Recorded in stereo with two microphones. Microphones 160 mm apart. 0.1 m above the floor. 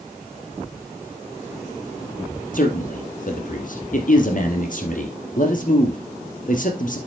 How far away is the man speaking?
About 2 m.